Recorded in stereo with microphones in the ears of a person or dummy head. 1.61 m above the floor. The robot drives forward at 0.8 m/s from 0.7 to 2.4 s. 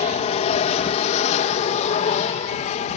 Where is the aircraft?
30° left (ahead or behind); by 3.0 s 35° left (ahead or behind).